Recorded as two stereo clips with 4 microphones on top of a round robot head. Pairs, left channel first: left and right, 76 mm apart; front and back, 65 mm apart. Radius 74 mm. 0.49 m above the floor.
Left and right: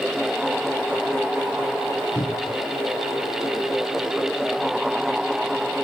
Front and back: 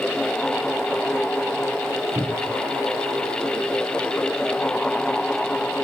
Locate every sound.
2.1 s a cupboard door: 125° left, 3 m